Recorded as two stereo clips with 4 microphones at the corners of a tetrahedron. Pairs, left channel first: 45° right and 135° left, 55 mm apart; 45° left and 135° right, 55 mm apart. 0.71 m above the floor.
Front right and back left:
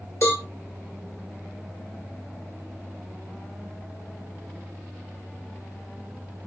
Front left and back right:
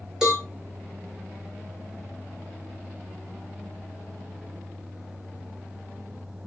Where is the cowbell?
55° right, 2.5 m.